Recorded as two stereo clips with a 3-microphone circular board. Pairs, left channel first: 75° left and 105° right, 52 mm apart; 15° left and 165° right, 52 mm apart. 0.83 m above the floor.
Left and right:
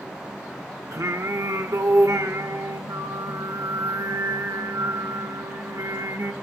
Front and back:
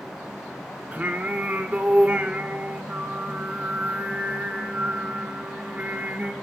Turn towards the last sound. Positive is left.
turn(degrees=-100)